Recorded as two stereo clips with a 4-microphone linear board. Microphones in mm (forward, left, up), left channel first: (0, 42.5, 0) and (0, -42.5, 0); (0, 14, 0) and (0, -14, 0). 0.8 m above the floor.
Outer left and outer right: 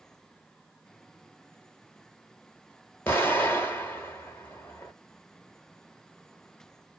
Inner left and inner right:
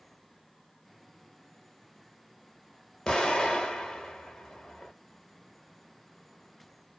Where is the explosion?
25° left (ahead or behind), 1.1 m.